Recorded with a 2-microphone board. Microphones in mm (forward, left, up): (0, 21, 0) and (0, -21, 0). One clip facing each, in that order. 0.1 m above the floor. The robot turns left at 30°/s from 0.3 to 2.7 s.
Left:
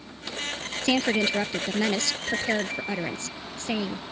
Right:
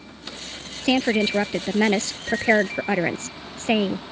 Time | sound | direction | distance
0.8 | a woman speaking | 20° right | ?